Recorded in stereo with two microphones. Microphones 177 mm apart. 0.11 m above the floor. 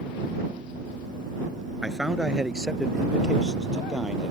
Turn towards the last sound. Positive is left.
turn(degrees=-5)  # may be behind; listen again after turning